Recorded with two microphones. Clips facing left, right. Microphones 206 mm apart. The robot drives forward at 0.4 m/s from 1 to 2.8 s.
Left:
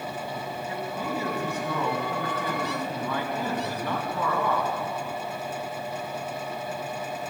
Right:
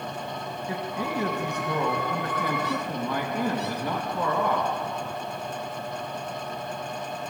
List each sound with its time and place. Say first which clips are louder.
0.7 s a man speaking: right 2 dB; 15° right (ahead or behind), 2 m; by 4.7 s 10° right (ahead or behind), 3 m